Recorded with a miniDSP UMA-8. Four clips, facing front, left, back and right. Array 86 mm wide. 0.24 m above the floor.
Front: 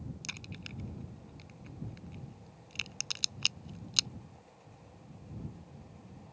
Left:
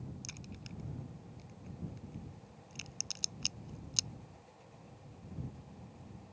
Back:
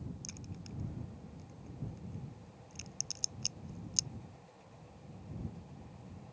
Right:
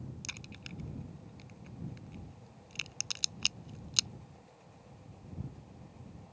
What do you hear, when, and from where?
0.2 s a crack: 35° right